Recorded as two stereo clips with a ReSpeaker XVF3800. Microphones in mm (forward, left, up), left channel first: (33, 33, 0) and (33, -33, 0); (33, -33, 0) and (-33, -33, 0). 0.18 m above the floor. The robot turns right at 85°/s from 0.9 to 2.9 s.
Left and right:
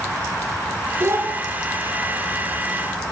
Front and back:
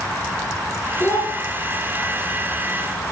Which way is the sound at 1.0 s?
60° right.